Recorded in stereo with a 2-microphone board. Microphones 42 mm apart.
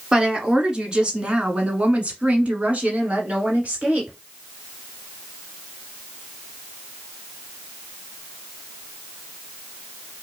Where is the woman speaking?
15° right (ahead or behind), 1.9 m; by 4.2 s 30° right (ahead or behind), 2 m.